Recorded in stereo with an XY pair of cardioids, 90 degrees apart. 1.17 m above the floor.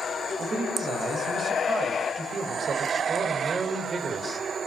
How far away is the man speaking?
About 7.5 m.